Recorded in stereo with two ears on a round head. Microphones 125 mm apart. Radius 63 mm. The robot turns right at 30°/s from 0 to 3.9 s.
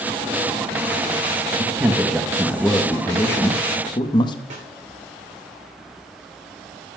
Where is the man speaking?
25° right, 0.8 m; by 4.4 s 45° left, 0.8 m.